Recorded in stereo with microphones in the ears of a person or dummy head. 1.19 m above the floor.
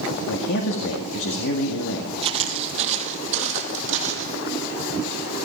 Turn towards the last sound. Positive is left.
turn(degrees=-40)  # may be behind; listen again after turning